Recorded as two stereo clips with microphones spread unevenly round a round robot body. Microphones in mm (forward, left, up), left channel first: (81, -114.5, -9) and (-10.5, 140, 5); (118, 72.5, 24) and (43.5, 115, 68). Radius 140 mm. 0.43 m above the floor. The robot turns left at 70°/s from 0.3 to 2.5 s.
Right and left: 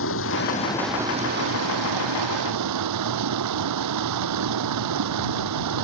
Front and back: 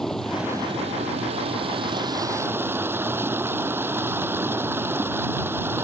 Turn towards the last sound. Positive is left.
turn(degrees=85)